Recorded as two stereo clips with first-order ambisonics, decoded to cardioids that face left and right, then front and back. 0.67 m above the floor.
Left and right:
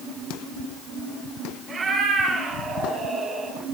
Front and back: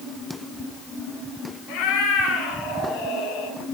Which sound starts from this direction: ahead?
A cat meowing, at 1.7 s.